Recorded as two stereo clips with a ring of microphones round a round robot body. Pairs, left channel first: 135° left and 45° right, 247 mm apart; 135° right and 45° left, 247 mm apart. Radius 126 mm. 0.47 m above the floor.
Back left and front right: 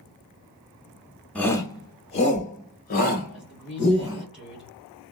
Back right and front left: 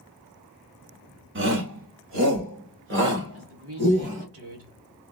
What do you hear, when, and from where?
1.4 s a shout: 50° left, 1.0 m; by 4.2 s 90° left, 2.5 m
3.3 s a woman speaking: 40° left, 1.8 m